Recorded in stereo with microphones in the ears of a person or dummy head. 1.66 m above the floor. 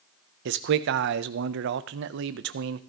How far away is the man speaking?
About 0.6 m.